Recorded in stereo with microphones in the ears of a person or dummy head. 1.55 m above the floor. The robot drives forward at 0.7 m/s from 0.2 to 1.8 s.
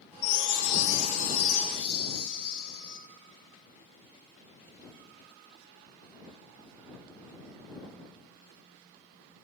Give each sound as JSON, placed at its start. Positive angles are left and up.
{"t": 0.2, "sound": "a chime", "side_deg": 70, "distance_m": 0.6}